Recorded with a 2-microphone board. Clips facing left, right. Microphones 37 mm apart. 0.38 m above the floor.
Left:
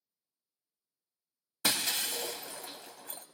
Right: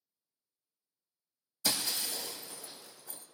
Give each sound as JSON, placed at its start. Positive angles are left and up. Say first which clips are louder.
{"t": 1.6, "sound": "breaking glass", "louder": "left 3 dB", "side_deg": 65, "distance_m": 1.1}